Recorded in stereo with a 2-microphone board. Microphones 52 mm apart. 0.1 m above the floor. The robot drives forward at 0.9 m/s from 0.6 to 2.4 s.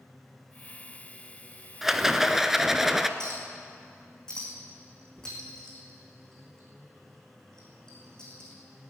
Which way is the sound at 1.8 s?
5° right (ahead or behind).